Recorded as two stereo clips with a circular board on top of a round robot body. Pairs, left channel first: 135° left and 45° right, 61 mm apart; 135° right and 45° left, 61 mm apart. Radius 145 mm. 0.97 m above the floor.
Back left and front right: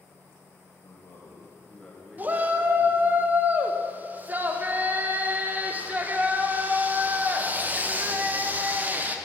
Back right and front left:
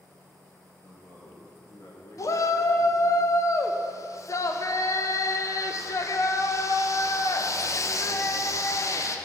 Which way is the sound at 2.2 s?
105° right.